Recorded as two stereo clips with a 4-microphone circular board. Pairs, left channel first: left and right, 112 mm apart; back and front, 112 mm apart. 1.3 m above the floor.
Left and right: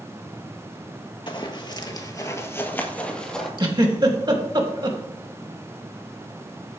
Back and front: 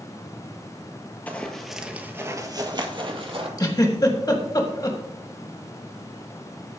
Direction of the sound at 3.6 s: 130° right.